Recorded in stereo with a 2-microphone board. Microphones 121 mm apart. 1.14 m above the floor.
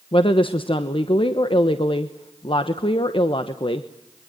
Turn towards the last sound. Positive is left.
turn(degrees=45)  # may be behind; listen again after turning